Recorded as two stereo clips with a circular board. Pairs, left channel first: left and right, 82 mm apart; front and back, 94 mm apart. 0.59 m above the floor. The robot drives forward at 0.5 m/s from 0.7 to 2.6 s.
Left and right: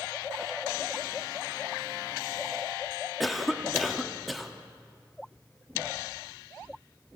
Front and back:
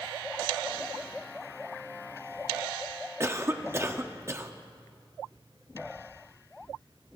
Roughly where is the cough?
Behind.